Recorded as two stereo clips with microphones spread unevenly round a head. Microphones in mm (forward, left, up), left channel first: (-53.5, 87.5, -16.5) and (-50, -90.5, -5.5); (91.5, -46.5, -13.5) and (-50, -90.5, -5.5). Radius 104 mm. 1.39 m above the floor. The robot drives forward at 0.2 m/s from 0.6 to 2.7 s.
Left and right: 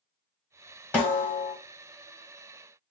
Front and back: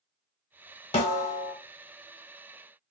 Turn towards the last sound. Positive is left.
turn(degrees=10)